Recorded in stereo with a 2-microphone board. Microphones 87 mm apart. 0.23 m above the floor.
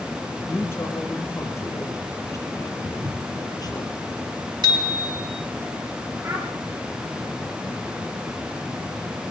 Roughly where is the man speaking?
Left.